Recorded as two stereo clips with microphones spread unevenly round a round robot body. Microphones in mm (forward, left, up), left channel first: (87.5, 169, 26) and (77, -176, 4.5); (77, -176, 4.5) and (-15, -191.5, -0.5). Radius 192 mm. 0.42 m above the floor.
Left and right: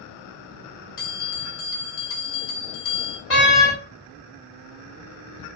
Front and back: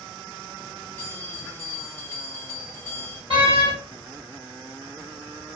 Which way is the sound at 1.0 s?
90° left.